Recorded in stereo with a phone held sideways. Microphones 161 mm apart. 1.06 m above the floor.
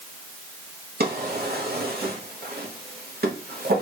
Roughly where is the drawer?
Right.